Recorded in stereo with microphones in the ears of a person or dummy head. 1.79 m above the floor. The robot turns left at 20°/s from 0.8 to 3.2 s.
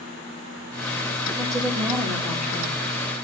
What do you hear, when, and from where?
1.4 s a woman speaking: 25° right (ahead or behind), 3 m; by 2.8 s 5° left (ahead or behind), 3 m